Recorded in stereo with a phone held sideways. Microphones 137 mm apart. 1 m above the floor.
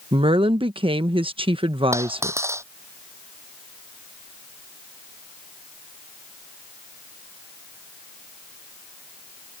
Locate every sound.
0.1 s a woman speaking: 40° right (ahead or behind)
1.9 s a dropped coin: 20° right (ahead or behind)